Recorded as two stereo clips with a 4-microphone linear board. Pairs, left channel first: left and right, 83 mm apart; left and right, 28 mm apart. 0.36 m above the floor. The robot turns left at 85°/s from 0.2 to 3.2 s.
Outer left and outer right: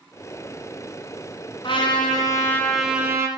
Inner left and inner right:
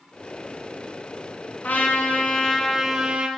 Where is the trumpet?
100° left, 2.0 m; by 3.3 s 35° right, 2.0 m.